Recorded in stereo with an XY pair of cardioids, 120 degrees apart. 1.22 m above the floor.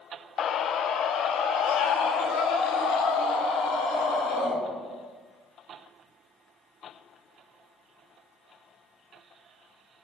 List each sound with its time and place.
0.4 s a scream: 50° left, 0.8 m; by 4.6 s 80° left, 5.5 m